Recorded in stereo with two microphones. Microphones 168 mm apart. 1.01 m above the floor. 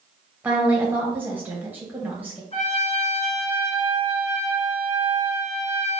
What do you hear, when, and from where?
0.4 s a woman speaking: 10° right (ahead or behind), 0.9 m
2.5 s a trumpet: 40° left (ahead or behind), 1.3 m